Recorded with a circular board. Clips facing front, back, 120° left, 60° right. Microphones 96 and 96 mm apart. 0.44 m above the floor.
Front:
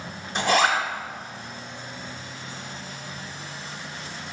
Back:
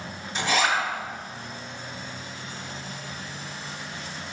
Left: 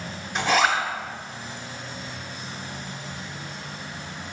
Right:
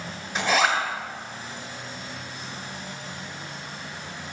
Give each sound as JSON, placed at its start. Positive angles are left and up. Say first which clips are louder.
{"t": 0.3, "sound": "a zipper", "louder": "front 3 dB, left 1 dB", "azimuth_deg": 30, "distance_m": 1.1}